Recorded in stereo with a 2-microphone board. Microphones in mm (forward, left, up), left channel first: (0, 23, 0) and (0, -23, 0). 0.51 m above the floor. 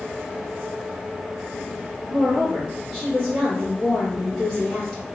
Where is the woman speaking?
5° left (ahead or behind), 1.0 m.